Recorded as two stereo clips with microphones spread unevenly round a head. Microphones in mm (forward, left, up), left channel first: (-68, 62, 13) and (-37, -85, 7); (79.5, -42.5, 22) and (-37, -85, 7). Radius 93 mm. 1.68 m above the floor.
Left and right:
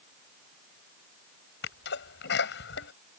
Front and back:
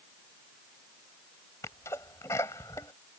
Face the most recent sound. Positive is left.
turn(degrees=95)